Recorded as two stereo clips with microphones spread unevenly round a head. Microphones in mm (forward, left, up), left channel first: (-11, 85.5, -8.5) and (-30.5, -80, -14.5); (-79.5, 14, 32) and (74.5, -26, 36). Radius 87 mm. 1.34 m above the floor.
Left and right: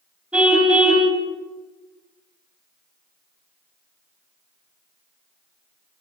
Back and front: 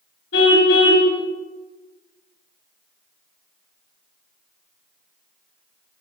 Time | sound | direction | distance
0.3 | a car horn | straight behind | 4 m